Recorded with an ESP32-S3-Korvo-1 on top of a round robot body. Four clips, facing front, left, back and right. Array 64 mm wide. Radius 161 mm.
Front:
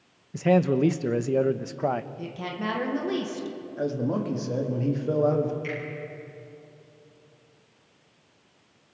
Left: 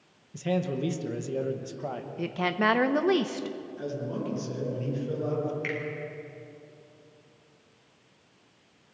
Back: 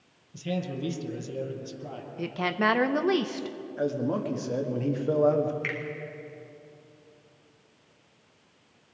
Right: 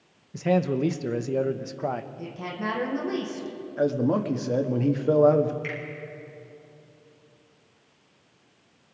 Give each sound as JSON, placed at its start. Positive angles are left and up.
{"t": 0.3, "sound": "a man speaking", "azimuth_deg": -20, "distance_m": 1.0}
{"t": 2.2, "sound": "a woman speaking", "azimuth_deg": 135, "distance_m": 1.6}
{"t": 3.8, "sound": "a man speaking", "azimuth_deg": -95, "distance_m": 1.9}
{"t": 5.6, "sound": "a finger snap", "azimuth_deg": 160, "distance_m": 4.0}